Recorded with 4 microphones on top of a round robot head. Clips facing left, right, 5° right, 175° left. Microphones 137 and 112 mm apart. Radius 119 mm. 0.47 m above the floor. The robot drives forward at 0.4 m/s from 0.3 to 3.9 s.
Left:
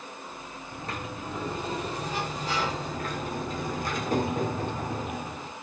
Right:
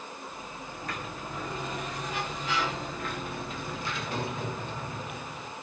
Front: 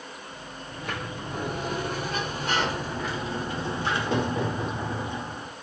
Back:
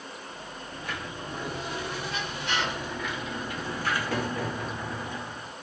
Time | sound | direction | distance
0.7 | a sliding door | 25° left | 2.5 m